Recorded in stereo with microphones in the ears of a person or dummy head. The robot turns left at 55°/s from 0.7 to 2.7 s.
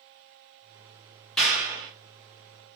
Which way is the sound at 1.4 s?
Centre (ahead or behind).